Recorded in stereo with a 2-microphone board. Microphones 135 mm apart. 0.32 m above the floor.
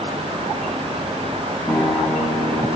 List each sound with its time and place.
1.7 s a guitar: 15° left (ahead or behind), 2.5 m